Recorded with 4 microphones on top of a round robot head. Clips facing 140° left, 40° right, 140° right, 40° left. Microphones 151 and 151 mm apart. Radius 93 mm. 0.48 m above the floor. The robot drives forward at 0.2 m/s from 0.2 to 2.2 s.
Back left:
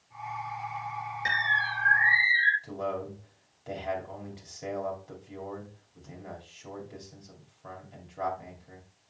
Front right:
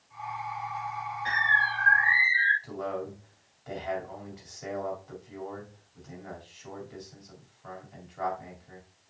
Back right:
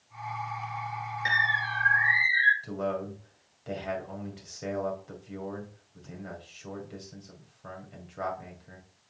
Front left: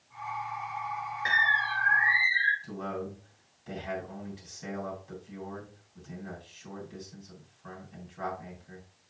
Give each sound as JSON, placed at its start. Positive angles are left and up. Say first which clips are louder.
{"t": 1.2, "sound": "a bird", "louder": "front right 4 dB, front left 2 dB", "azimuth_deg": 150, "distance_m": 1.7}
{"t": 2.6, "sound": "a man speaking", "louder": "back left 1 dB, back right 5 dB", "azimuth_deg": -155, "distance_m": 2.5}